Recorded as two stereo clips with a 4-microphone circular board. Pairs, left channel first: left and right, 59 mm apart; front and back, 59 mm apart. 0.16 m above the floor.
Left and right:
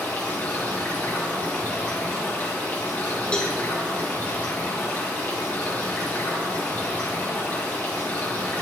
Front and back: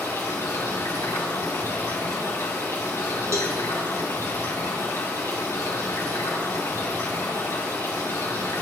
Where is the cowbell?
160° left, 1.2 m.